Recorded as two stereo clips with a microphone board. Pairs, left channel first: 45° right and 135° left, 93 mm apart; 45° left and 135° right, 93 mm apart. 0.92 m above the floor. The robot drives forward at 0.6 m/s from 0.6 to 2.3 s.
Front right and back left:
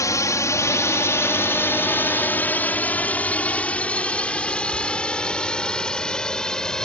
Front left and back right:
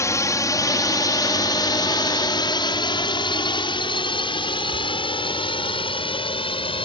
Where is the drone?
5° right; by 6.8 s 35° left.